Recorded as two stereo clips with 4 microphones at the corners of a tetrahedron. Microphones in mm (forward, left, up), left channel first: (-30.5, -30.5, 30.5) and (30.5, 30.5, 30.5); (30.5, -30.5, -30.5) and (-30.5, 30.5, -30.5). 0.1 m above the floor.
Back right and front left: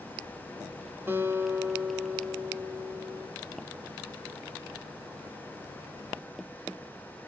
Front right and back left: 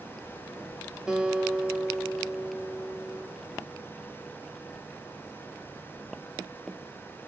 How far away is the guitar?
About 0.7 m.